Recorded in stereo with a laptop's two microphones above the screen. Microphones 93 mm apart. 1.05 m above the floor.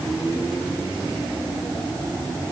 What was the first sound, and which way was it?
Only background noise.